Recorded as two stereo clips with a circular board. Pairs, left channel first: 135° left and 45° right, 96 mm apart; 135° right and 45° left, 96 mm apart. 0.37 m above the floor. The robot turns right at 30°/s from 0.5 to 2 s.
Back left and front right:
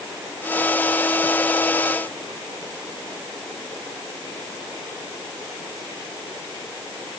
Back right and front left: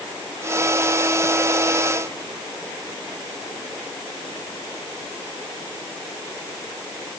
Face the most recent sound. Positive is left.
No sound to turn to.